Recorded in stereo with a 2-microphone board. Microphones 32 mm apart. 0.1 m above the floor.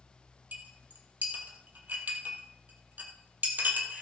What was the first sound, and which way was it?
A clink, 60° right (ahead or behind).